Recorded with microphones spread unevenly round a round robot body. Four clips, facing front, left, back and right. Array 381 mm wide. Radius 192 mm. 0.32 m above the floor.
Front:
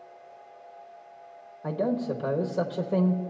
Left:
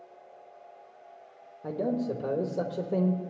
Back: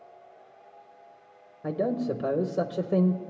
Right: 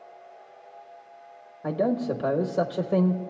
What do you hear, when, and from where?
1.6 s a man speaking: 150° right, 0.9 m